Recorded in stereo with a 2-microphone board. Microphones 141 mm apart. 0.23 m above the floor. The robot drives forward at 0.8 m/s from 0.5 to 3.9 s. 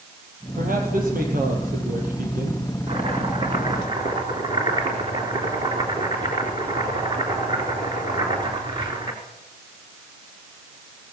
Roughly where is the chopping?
Right.